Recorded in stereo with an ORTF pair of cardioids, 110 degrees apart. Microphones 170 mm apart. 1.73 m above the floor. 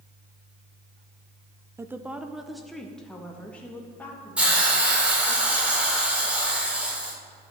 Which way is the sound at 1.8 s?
15° right.